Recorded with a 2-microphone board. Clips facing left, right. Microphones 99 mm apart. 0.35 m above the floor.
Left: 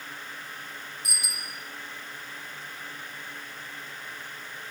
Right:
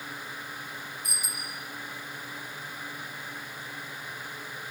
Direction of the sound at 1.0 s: 75° left (ahead or behind).